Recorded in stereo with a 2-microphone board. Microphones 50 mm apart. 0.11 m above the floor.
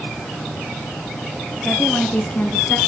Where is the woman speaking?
20° left (ahead or behind), 1.2 m; by 2.8 s 35° left (ahead or behind), 1.4 m.